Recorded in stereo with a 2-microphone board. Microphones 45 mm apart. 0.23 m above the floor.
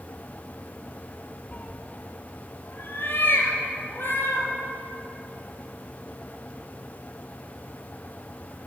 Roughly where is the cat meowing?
Left.